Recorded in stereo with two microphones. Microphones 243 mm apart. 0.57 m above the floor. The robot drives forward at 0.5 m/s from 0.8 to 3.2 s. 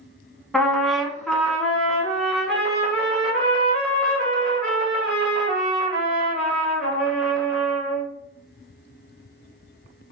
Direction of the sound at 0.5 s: Centre (ahead or behind).